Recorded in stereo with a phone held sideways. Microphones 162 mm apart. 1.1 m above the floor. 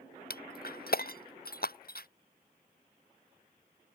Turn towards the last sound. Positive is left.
turn(degrees=70)  # may be behind; listen again after turning